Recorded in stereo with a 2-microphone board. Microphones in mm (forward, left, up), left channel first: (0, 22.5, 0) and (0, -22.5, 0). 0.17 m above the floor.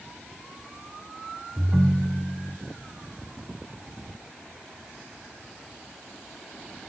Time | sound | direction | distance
1.6 | a ringtone | 25° right (ahead or behind) | 1.0 m